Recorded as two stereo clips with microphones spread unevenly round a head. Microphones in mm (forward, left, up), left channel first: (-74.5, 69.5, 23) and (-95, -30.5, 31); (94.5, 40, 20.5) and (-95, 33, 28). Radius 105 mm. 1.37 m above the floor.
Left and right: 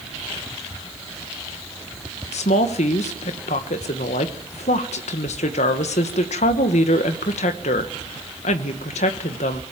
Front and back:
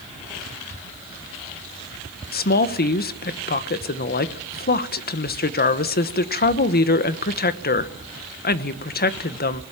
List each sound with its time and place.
2.3 s a woman speaking: 45° left, 1.3 m